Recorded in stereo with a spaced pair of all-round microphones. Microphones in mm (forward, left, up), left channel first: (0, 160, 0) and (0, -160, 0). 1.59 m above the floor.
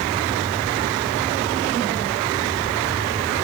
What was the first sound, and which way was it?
Only background noise.